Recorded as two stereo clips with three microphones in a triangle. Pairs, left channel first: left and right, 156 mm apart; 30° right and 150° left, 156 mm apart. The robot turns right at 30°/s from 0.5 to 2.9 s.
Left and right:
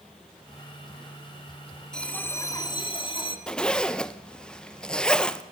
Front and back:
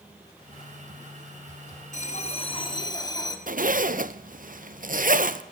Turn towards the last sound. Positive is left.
turn(degrees=175)